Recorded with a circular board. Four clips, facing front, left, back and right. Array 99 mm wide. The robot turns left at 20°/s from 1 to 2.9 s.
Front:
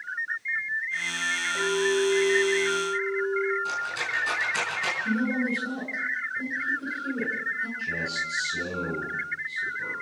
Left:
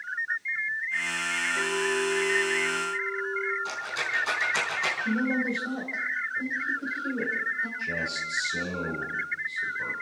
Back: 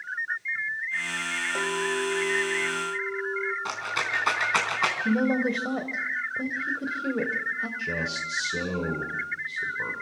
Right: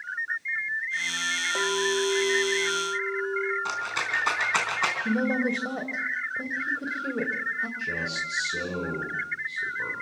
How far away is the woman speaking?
About 3 m.